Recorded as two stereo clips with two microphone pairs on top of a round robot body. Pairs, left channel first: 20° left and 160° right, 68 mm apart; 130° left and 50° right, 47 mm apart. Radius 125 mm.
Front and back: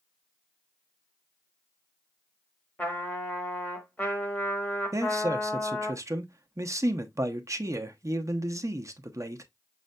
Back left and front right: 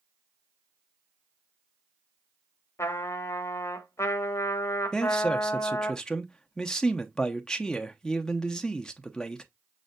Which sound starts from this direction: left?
A trumpet, at 2.8 s.